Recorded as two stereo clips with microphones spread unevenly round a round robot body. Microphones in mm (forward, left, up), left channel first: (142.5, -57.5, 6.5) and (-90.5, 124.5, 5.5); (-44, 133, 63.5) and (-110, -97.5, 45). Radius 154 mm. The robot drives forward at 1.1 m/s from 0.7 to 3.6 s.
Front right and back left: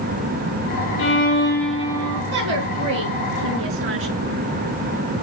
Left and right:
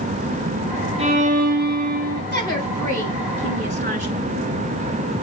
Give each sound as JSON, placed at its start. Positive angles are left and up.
{"t": 1.0, "sound": "a violin", "azimuth_deg": -60, "distance_m": 1.0}
{"t": 2.3, "sound": "a woman speaking", "azimuth_deg": -160, "distance_m": 4.5}